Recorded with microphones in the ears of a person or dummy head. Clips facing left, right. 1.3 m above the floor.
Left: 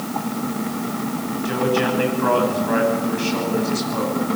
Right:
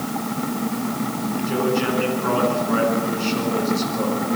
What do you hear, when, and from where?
1.4 s a man speaking: 80° left, 10 m